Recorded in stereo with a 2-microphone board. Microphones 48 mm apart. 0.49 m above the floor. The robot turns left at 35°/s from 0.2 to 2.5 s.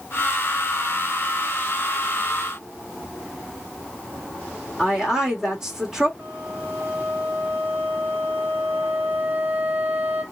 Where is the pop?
I don't hear a pop.